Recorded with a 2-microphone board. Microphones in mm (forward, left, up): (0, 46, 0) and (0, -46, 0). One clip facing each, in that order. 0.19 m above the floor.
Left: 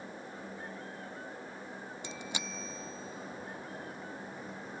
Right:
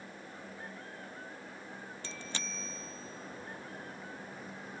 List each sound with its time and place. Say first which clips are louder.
2.0 s a bicycle bell: left 2 dB; 15° left (ahead or behind); by 4.8 s 5° right (ahead or behind)